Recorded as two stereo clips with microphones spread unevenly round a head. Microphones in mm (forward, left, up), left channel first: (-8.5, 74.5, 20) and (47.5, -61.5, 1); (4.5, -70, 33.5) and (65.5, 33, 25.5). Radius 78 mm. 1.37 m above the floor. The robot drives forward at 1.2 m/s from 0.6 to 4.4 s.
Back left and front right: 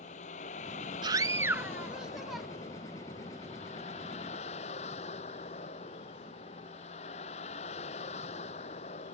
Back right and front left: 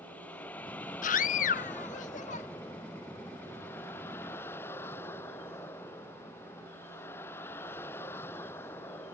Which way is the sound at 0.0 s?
160° left.